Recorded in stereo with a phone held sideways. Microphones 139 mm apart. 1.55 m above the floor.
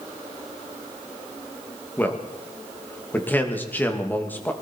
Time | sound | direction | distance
2.0 | a man speaking | 15° left (ahead or behind) | 2.5 m